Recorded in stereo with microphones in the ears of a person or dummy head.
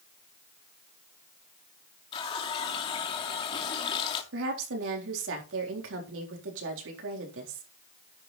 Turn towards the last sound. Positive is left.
turn(degrees=-85)